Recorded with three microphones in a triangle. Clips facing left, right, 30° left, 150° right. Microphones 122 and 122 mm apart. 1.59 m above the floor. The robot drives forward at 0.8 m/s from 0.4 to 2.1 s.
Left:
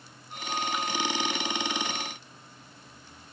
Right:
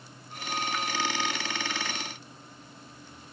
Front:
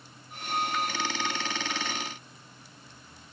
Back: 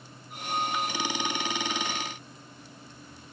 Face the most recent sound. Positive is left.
No sound to turn to.